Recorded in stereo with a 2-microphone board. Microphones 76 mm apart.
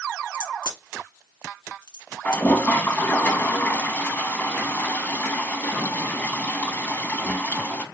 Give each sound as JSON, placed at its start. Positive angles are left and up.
{"t": 0.3, "sound": "a crack", "side_deg": 75, "distance_m": 2.0}
{"t": 2.2, "sound": "a toilet flushing", "side_deg": 25, "distance_m": 0.7}